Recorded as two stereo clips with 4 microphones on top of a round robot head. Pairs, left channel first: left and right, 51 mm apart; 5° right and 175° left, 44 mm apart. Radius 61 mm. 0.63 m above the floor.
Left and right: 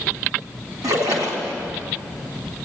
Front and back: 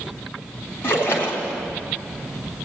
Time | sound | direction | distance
0.8 | a splash | 60° right | 3.5 m